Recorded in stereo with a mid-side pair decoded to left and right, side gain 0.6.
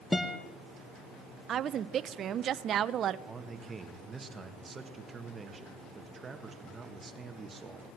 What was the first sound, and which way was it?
A guitar, 15° left.